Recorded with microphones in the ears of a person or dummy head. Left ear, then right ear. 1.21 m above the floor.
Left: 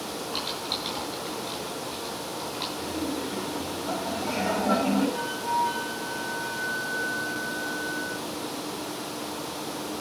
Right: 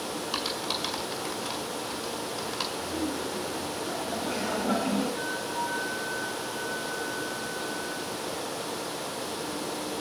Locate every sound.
0.3 s typing on a keyboard: 50° right (ahead or behind), 1.7 m
2.8 s laughter: 5° right (ahead or behind), 5 m
5.1 s a flute: 70° left (ahead or behind), 2 m